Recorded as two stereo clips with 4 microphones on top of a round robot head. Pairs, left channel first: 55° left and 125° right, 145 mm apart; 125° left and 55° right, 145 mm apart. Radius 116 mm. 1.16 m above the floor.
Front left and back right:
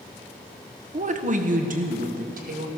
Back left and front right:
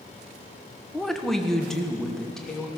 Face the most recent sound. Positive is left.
turn(degrees=-150)